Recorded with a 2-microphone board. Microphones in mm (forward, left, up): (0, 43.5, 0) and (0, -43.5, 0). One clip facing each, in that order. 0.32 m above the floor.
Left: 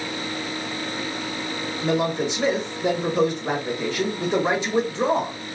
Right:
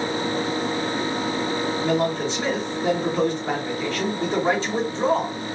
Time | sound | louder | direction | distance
1.8 | a man speaking | left 2 dB | 15° left (ahead or behind) | 1.5 m